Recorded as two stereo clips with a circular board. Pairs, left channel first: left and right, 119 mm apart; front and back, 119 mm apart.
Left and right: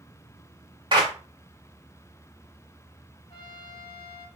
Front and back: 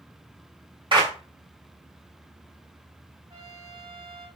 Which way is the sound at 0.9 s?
135° right.